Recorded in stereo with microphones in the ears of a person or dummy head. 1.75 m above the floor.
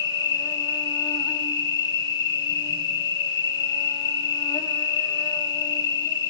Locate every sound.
0.0 s an insect: 20° left (ahead or behind), 1.8 m